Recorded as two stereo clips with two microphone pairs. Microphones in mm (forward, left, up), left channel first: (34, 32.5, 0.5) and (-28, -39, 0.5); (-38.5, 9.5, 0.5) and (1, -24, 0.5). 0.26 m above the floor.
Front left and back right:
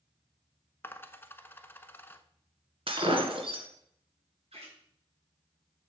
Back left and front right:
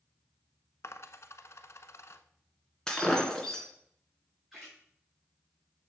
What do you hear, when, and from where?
0.8 s a dropped coin: 115° left, 0.7 m
2.9 s breaking glass: 145° right, 1.9 m
4.5 s a splash: 130° right, 4.5 m